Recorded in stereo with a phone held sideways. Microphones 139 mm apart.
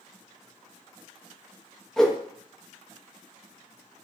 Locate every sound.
2.0 s a whoosh: 5° left (ahead or behind), 0.6 m